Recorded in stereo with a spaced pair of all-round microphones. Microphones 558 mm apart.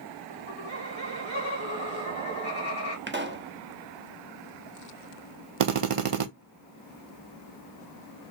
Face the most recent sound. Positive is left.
turn(degrees=-65)  # may be behind; listen again after turning